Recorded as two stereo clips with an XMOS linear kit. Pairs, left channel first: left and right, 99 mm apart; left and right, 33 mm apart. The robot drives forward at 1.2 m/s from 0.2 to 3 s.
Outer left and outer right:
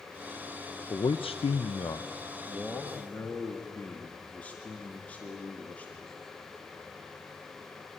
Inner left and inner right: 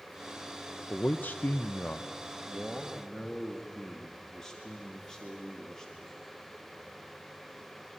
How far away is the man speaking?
About 0.8 m.